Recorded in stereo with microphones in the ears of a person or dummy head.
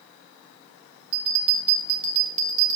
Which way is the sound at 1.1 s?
35° right (ahead or behind).